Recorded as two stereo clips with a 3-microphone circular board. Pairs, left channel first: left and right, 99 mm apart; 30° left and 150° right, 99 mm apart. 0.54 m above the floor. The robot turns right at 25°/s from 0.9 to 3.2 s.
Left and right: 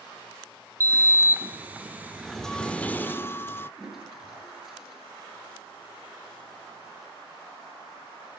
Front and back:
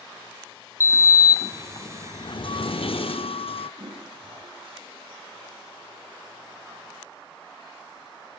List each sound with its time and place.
0.8 s a sliding door: 30° right, 0.5 m; by 3.7 s 25° left, 0.5 m
3.8 s a toilet flushing: straight behind, 7.5 m